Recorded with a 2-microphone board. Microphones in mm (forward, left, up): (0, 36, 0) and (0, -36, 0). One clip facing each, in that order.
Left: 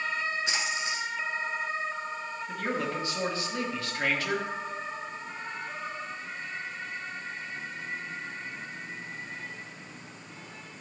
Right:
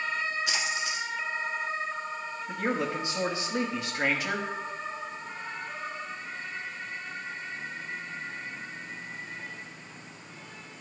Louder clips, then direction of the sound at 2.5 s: Right 2 dB; 20° right (ahead or behind).